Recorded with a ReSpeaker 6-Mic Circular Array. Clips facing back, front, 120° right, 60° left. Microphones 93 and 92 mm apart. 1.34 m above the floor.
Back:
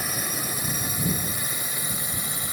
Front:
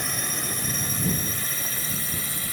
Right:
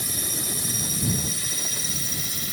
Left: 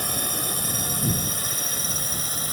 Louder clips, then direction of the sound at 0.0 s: Back 1 dB, left 4 dB; 95° left.